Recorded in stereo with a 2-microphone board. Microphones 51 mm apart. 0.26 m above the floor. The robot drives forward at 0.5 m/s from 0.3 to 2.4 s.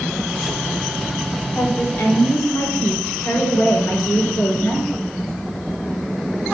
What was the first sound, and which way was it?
A woman speaking, 55° left (ahead or behind).